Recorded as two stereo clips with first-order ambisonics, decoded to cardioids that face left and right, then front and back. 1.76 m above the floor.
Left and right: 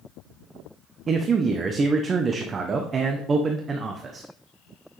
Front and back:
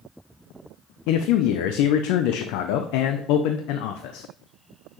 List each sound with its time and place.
1.1 s a man speaking: 20° right, 0.6 m